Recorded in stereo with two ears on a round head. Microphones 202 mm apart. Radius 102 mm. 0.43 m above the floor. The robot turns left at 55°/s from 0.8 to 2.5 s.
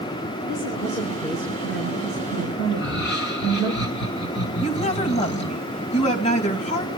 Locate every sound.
0.4 s a woman speaking: 55° left, 6 m; by 3.7 s 40° right, 6 m
2.7 s laughter: 50° left (ahead or behind), 3 m
4.6 s a woman speaking: 25° left (ahead or behind), 3 m